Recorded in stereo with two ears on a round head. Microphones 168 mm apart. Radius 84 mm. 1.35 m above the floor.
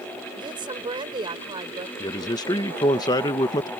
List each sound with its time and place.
0.4 s a woman speaking: 25° right (ahead or behind)
2.0 s a man speaking: 20° left (ahead or behind)